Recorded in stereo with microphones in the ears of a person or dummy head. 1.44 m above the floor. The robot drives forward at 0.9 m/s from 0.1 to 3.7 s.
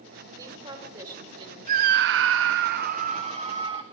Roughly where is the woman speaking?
Right.